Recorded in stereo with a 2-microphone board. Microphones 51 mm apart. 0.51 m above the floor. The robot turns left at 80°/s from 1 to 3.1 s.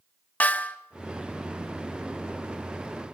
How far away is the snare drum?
About 1.4 m.